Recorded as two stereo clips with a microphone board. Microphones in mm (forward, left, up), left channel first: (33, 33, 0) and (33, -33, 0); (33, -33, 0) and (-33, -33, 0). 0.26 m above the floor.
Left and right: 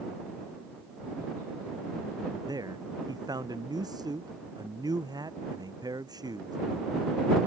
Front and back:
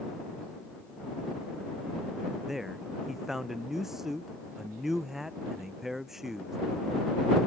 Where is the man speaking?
95° right.